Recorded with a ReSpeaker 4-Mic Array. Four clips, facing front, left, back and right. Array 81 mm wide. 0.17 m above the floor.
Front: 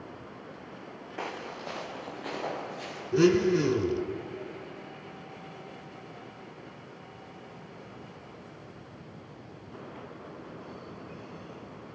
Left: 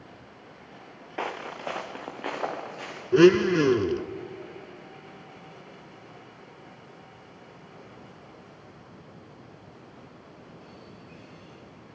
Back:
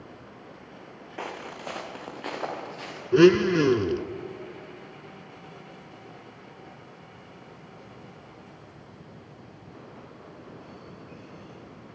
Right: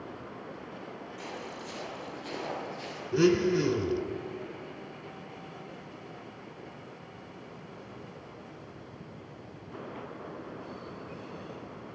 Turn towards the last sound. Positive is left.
turn(degrees=125)